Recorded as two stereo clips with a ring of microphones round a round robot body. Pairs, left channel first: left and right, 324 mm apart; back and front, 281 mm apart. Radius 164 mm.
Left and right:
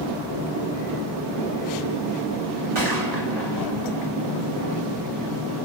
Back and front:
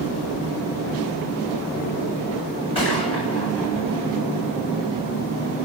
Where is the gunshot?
105° right, 2.5 m.